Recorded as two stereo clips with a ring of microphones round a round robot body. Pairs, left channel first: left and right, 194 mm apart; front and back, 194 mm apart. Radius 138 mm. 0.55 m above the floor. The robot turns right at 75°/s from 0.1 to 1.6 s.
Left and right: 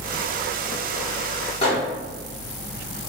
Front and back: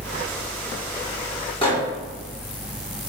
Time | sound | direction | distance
1.6 | a microwave | 50° left | 1.3 m